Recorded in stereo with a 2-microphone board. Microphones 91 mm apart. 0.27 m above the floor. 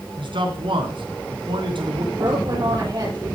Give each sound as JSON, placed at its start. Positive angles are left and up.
{"t": 0.2, "sound": "a man speaking", "side_deg": -65, "distance_m": 2.5}
{"t": 2.1, "sound": "a woman speaking", "side_deg": -55, "distance_m": 6.5}